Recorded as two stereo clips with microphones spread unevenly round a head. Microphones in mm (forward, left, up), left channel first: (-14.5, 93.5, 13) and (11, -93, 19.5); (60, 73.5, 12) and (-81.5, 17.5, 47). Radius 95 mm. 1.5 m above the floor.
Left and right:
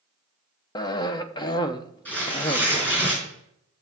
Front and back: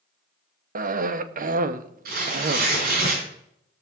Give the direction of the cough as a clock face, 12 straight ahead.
6 o'clock.